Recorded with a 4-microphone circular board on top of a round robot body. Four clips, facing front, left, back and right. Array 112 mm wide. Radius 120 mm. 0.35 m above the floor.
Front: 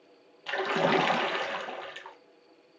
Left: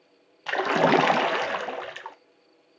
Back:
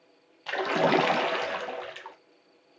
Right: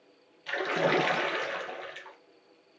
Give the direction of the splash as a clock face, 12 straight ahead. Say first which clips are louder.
Left 7 dB, back 2 dB; 9 o'clock.